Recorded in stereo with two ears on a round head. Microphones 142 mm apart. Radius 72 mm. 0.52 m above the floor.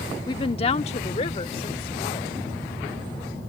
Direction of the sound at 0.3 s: 25° left (ahead or behind).